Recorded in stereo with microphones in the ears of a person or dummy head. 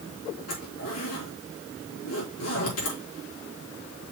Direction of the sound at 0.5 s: 80° left.